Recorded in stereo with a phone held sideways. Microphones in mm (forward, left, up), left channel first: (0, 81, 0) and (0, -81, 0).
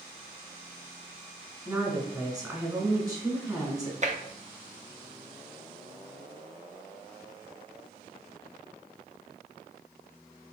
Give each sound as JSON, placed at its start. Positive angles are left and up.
{"t": 1.6, "sound": "a woman speaking", "side_deg": -20, "distance_m": 1.7}
{"t": 4.0, "sound": "tapping", "side_deg": -50, "distance_m": 0.6}